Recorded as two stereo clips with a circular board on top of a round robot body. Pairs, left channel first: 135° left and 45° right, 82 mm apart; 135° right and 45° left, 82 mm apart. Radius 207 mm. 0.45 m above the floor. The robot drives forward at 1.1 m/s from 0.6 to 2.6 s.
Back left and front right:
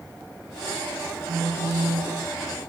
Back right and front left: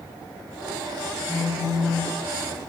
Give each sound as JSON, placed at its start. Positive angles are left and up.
{"t": 1.3, "sound": "a phone buzzing", "azimuth_deg": -15, "distance_m": 2.0}